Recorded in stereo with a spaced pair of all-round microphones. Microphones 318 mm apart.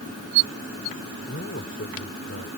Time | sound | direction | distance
1.3 | a man speaking | 40° left (ahead or behind) | ?